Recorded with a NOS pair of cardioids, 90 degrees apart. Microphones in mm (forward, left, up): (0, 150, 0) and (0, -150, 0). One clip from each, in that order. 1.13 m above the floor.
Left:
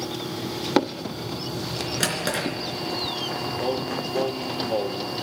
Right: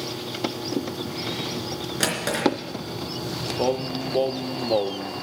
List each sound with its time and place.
2.0 s a drawer: 10° left, 3.5 m
3.6 s singing: 30° right, 0.5 m